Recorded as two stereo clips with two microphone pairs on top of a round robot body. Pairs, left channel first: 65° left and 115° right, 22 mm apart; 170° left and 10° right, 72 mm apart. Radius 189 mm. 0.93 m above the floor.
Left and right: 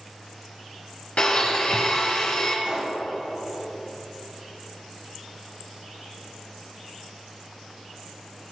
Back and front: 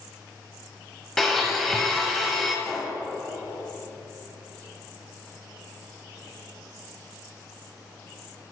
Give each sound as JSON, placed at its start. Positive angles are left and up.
{"t": 1.2, "sound": "a blender", "azimuth_deg": 85, "distance_m": 1.1}
{"t": 2.6, "sound": "a pop", "azimuth_deg": -105, "distance_m": 3.5}